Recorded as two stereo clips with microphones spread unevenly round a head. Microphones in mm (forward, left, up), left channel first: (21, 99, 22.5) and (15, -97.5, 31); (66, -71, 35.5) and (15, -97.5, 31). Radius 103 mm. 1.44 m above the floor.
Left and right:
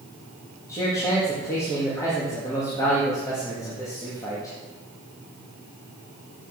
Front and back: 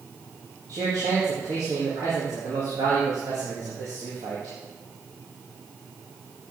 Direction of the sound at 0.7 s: 165° left.